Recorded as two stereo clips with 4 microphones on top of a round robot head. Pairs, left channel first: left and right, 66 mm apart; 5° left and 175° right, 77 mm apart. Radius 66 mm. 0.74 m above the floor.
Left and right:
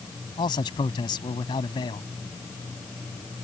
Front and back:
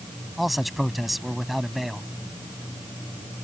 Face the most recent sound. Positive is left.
turn(degrees=95)